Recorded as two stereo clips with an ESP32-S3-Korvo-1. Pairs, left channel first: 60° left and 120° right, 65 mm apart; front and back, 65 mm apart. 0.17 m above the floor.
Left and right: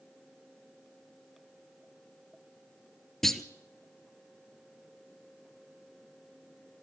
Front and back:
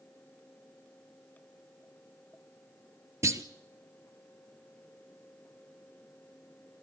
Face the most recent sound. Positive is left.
turn(degrees=145)